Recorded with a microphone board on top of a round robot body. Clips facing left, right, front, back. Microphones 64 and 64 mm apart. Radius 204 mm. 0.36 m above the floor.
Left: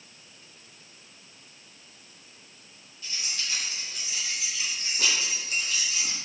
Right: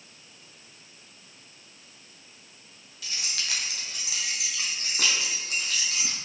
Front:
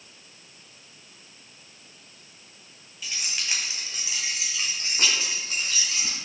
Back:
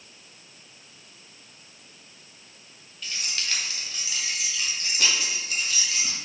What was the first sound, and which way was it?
Keys jangling, 85° right.